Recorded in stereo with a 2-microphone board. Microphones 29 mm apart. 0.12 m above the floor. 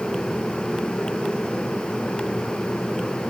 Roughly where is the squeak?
No squeak in this recording.